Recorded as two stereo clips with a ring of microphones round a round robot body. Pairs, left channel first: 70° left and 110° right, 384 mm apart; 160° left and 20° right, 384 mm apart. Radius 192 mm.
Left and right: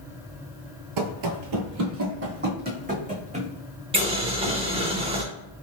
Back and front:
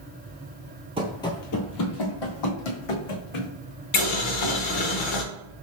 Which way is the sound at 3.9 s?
175° left.